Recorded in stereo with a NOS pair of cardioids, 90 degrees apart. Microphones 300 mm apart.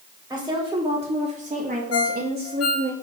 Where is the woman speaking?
10° right, 3 m; by 2.9 s 45° right, 1.8 m.